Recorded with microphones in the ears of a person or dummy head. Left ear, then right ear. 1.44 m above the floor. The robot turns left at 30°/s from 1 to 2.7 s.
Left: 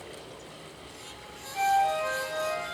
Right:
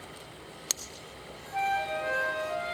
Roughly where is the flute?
Centre.